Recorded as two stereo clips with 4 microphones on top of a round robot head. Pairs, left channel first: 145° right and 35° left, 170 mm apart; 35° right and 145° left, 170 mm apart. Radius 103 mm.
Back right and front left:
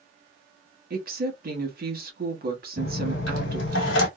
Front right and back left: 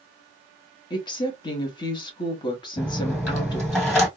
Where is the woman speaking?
25° left, 1.2 m.